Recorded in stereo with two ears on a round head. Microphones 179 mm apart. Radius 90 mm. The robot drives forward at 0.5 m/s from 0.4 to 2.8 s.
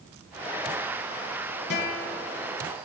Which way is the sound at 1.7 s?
55° left (ahead or behind).